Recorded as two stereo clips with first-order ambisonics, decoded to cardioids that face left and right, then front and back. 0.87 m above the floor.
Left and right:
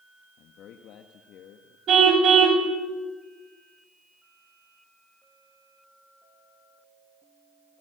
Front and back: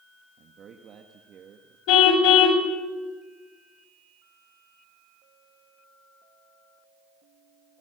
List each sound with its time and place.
0.4 s a man speaking: 130° left, 1.4 m
1.9 s a car horn: 30° right, 2 m